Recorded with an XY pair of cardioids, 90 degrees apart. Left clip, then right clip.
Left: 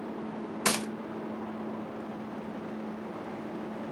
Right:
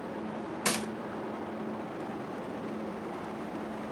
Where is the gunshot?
40° left, 0.8 m.